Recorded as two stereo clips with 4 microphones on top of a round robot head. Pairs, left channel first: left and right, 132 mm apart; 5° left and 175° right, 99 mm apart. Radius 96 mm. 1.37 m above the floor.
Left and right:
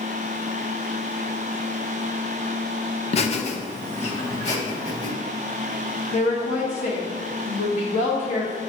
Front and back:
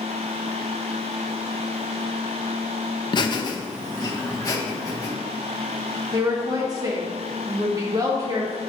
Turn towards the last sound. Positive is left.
turn(degrees=135)